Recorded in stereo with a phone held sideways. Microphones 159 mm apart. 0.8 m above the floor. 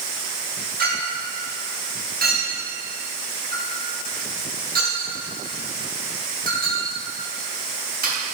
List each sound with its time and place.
0.8 s a clink: 75° right (ahead or behind), 3.5 m